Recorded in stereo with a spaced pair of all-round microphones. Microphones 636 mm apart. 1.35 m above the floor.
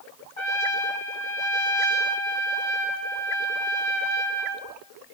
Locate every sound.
0.4 s a trumpet: 50° left (ahead or behind), 2.5 m